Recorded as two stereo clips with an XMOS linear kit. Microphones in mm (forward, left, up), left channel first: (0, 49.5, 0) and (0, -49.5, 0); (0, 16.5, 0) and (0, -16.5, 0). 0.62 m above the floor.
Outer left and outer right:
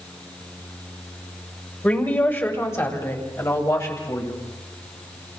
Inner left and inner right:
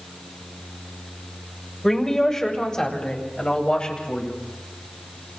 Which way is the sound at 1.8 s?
20° left (ahead or behind).